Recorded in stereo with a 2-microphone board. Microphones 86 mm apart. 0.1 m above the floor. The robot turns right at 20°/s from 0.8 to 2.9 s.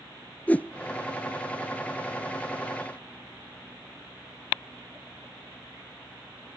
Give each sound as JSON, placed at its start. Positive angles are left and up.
{"t": 0.5, "sound": "a whoosh", "side_deg": 20, "distance_m": 0.6}